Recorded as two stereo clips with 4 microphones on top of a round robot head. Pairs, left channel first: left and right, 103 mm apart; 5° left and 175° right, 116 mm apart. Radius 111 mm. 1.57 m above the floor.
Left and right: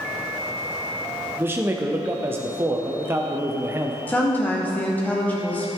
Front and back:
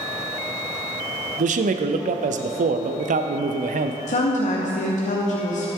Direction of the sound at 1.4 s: 160° right.